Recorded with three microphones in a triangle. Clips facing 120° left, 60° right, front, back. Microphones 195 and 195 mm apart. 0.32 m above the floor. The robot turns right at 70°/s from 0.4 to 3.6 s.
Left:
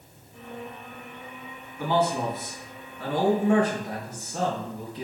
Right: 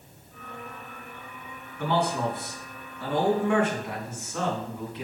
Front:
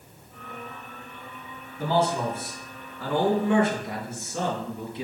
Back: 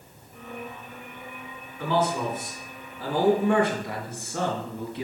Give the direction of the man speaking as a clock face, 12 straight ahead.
11 o'clock.